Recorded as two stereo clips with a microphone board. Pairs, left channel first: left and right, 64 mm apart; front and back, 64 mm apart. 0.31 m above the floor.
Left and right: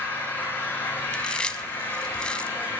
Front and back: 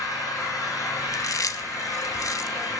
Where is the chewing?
15° left, 0.9 m.